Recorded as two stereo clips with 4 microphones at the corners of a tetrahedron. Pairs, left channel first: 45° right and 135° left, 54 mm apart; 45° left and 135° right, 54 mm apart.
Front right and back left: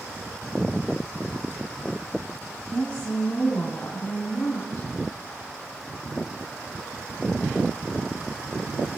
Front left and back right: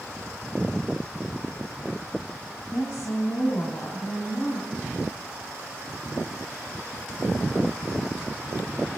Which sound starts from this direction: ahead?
A woman speaking, at 2.7 s.